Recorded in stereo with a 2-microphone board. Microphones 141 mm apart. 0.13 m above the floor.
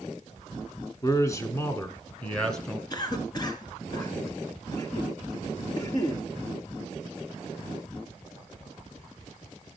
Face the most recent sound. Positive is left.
turn(degrees=30)  # may be behind; listen again after turning